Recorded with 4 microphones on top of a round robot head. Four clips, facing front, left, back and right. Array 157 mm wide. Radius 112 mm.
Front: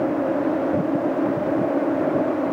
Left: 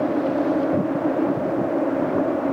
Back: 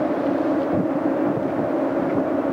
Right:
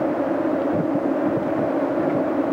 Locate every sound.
Only background noise.